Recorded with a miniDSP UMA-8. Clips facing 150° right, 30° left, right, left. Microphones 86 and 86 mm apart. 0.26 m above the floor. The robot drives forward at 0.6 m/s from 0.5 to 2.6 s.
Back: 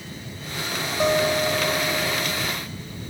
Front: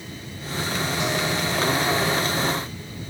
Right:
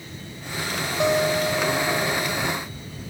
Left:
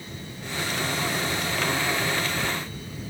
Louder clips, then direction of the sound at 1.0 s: Back 8 dB, right 8 dB; 100° right.